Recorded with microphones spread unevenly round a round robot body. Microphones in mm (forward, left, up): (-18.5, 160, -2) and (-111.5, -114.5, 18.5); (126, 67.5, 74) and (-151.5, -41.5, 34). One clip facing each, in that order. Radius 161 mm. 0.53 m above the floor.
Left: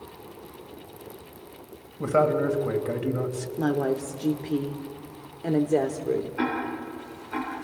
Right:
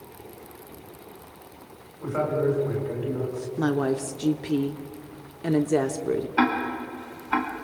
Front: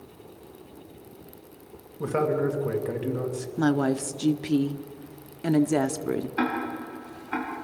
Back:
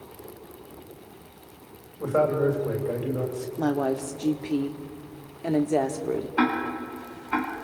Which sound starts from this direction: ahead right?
A woman speaking, at 3.6 s.